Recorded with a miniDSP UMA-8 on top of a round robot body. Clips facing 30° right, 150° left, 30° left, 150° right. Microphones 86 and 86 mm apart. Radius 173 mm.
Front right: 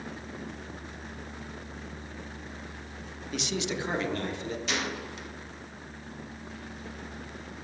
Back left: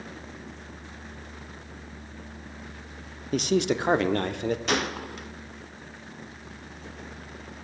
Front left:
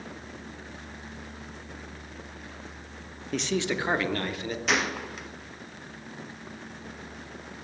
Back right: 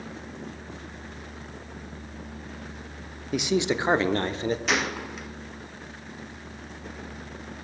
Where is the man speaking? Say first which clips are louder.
Back left 9 dB, back right 4 dB; 130° left, 0.9 m; by 4.6 s 160° left, 1.5 m.